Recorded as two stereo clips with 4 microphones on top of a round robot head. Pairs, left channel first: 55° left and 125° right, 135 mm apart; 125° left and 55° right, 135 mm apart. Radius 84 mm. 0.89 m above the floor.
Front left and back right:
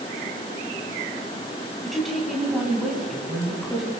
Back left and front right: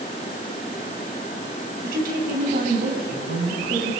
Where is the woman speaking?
35° right, 7 m.